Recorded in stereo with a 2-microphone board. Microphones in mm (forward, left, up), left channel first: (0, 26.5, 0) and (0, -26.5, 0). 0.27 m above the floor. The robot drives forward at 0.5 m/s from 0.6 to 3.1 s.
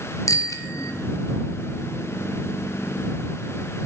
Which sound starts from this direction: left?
A bicycle bell, at 0.3 s.